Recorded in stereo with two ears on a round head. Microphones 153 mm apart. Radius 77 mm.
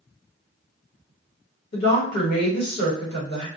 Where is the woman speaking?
65° left (ahead or behind), 1.4 m.